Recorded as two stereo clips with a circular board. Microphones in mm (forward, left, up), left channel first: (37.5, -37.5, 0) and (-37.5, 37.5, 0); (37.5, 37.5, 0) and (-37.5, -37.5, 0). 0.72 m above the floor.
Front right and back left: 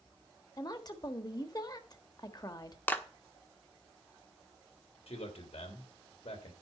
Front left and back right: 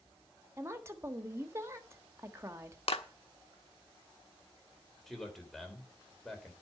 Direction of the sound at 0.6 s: 80° right.